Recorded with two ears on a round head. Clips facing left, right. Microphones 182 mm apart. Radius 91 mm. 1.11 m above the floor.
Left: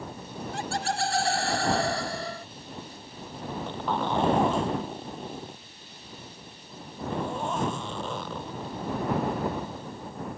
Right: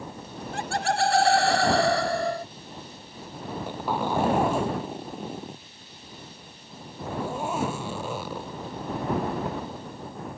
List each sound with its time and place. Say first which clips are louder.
0.5 s laughter: right 4 dB; 50° right (ahead or behind); by 2.5 s 35° right (ahead or behind)
3.5 s a zipper: right 1 dB; 10° right (ahead or behind)